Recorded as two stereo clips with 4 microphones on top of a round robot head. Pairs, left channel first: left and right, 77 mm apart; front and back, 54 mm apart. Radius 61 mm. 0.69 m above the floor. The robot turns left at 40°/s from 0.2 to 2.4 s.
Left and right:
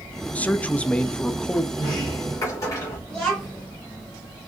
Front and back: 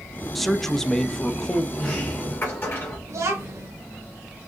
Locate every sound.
0.3 s a man speaking: 85° left, 0.6 m; by 1.6 s 30° left, 0.6 m
1.8 s a sliding door: 70° left, 3 m; by 3.0 s 40° left, 3 m
3.1 s a child speaking: 170° left, 1.6 m